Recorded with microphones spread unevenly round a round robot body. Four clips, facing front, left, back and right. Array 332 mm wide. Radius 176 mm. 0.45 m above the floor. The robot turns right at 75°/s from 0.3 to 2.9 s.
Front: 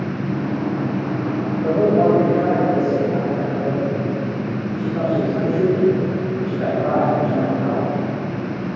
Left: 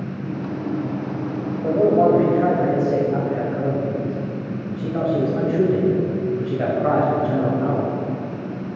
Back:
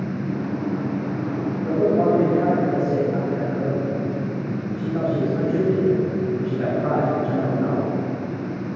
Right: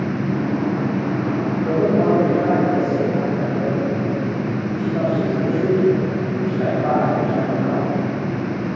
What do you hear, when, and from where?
1.6 s a man speaking: 25° left, 2.5 m; by 7.9 s 125° left, 2.5 m